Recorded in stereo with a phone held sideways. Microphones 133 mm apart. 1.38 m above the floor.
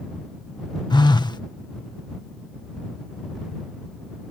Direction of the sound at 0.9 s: 35° left (ahead or behind).